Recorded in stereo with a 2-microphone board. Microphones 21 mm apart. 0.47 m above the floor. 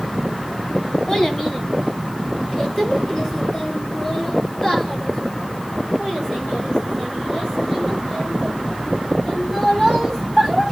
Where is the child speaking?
25° left (ahead or behind), 2.5 m; by 10.6 s 15° left (ahead or behind), 10 m.